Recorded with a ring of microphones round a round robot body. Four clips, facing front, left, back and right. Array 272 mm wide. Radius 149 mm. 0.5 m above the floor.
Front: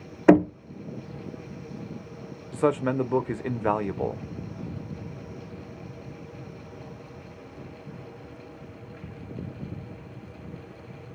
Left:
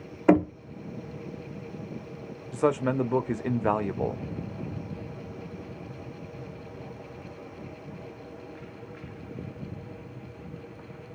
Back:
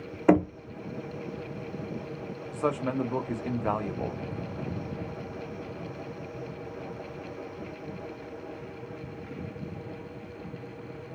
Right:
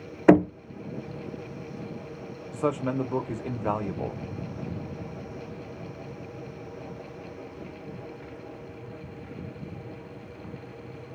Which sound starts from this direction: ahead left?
A man speaking, at 2.5 s.